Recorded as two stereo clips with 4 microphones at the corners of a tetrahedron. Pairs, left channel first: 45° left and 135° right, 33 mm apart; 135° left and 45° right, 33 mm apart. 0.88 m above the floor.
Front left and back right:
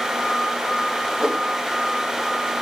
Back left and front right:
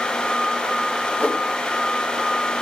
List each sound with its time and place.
1.2 s a whoosh: 160° left, 1.4 m